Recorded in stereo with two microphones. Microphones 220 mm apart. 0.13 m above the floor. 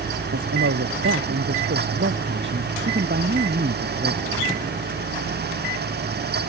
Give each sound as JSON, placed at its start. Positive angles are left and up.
{"t": 0.3, "sound": "a man speaking", "side_deg": -75}